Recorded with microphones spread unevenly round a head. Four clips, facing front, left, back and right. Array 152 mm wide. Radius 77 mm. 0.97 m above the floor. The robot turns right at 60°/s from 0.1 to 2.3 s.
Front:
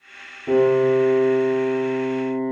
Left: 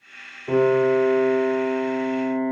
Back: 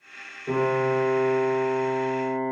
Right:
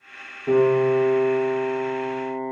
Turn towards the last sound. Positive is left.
turn(degrees=40)